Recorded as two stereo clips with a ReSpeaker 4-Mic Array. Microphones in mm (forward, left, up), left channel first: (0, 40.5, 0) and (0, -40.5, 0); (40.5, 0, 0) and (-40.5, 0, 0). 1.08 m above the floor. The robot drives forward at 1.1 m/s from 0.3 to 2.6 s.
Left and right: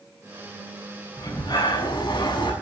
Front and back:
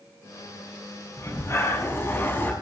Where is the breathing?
50° left, 6.5 m; by 2.5 s 65° left, 6 m.